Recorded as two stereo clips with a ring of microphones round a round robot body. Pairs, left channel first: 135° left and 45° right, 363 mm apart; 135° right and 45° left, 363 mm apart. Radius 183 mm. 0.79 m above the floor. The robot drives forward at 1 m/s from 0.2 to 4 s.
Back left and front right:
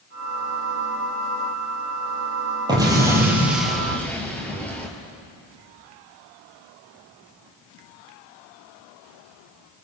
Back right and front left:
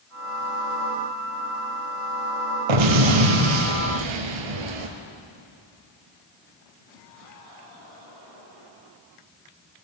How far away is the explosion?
About 4 m.